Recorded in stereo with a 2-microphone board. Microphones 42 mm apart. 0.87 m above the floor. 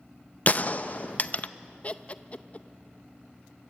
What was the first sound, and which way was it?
A gunshot, 40° left (ahead or behind).